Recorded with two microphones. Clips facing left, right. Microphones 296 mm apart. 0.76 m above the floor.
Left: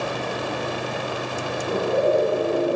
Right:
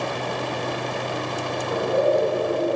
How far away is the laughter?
About 6 m.